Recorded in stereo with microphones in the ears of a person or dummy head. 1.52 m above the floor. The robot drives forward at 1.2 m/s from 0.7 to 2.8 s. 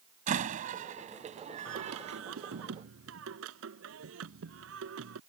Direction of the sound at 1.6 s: 80° right.